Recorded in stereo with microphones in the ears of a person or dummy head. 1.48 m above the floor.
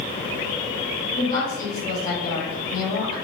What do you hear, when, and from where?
1.2 s a woman speaking: 20° left (ahead or behind), 1.7 m